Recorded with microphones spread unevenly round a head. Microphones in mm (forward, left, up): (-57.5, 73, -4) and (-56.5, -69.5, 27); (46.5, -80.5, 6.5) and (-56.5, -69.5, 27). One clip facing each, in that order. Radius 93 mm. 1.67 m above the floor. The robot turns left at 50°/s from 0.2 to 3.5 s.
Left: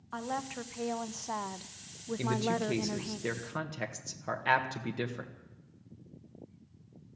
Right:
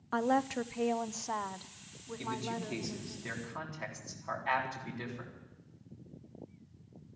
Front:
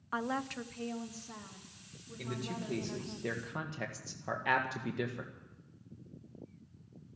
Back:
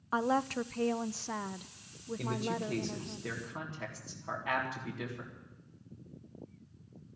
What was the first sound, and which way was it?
A woman speaking, 125° right.